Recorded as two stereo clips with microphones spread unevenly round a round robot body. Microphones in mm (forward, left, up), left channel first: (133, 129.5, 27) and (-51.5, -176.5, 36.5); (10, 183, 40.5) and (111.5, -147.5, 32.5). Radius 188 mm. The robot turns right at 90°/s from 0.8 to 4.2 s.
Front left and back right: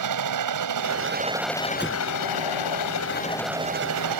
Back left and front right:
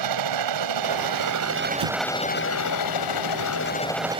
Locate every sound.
0.0 s a helicopter: 90° right; by 4.2 s 145° right
1.8 s an explosion: 35° right; by 2.0 s 15° right